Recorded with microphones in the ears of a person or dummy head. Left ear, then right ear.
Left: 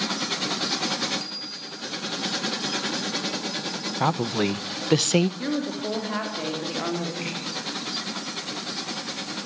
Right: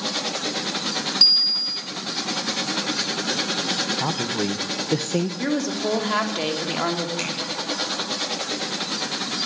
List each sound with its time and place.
1.2 s a bicycle bell: 85° right, 3.5 m
4.0 s a woman speaking: 45° left (ahead or behind), 0.7 m
5.4 s a woman speaking: 90° right, 3.5 m
7.2 s tapping: 70° right (ahead or behind), 9.5 m